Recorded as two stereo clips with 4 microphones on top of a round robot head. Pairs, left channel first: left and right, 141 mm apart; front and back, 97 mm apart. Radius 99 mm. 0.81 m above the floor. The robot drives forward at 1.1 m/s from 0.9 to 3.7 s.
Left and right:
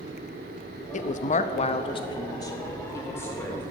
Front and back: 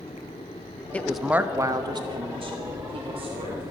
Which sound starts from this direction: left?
A woman speaking, at 0.9 s.